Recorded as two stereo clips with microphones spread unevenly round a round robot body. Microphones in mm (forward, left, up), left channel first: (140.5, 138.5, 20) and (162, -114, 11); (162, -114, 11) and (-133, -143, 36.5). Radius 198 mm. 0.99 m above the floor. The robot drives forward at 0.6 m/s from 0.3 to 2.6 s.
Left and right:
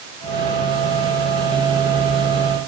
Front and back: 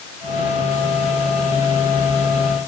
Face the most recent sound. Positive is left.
No sound to turn to.